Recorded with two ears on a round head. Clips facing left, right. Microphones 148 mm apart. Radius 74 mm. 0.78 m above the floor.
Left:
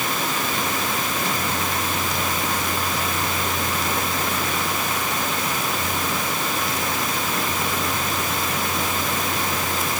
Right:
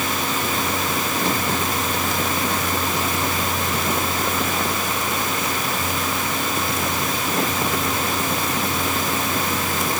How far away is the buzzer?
I don't hear a buzzer.